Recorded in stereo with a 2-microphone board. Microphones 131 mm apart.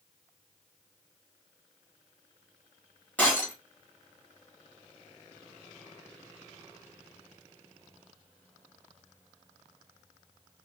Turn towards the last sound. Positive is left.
turn(degrees=15)  # may be behind; listen again after turning